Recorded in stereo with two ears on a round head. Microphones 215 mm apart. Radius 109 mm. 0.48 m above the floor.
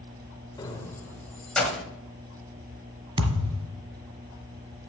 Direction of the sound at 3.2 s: 25° right (ahead or behind).